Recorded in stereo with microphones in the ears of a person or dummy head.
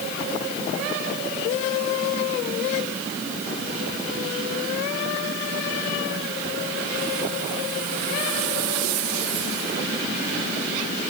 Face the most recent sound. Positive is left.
No sound to turn to.